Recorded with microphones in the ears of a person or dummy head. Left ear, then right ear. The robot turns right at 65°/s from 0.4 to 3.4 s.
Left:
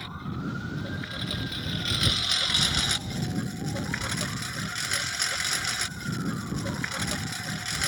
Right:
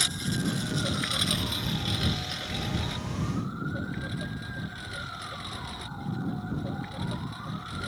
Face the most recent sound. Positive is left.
turn(degrees=115)